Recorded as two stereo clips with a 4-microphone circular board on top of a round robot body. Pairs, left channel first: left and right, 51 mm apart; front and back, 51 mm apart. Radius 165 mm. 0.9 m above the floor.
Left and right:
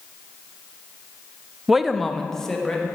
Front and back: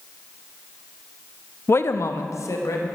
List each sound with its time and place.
1.7 s a man speaking: 10° right, 0.5 m; by 3.0 s 10° left, 1.8 m